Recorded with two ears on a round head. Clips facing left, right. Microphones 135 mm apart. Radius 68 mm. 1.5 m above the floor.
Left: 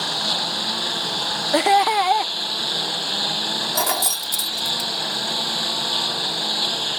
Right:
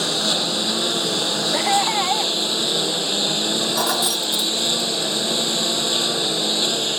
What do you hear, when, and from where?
0.0 s a lawn mower: 60° right (ahead or behind)
1.5 s laughter: 50° left (ahead or behind)
3.8 s keys jangling: 10° left (ahead or behind)